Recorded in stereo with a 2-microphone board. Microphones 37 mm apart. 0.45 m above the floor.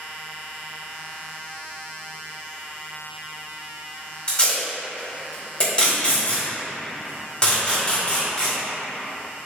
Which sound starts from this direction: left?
Tape being pulled, at 4.3 s.